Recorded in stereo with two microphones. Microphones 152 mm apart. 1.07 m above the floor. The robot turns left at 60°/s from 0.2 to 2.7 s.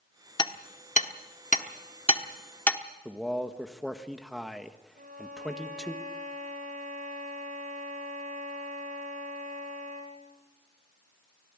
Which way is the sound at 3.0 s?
Centre (ahead or behind).